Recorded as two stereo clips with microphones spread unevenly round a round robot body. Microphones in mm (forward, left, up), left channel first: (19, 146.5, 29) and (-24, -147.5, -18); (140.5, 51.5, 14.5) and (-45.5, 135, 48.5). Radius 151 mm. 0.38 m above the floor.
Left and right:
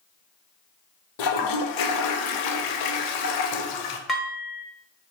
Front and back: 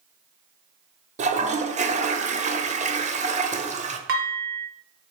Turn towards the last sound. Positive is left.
turn(degrees=175)